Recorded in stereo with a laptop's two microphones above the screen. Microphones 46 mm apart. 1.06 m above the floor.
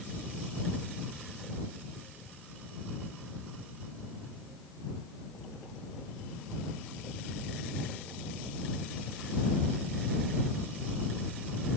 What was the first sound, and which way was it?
Only background noise.